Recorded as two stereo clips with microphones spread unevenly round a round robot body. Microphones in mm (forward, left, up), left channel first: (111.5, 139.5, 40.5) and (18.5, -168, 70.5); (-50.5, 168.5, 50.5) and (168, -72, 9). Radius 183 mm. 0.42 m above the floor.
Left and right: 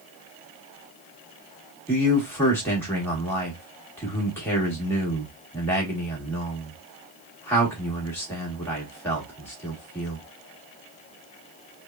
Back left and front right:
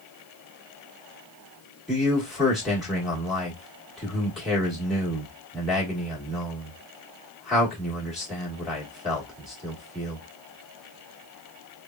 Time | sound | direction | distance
1.9 | a man speaking | 20° left | 1.2 m